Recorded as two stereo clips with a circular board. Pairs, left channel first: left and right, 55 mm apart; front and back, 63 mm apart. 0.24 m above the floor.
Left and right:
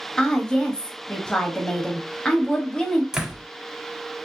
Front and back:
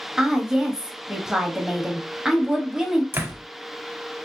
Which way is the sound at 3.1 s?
160° right.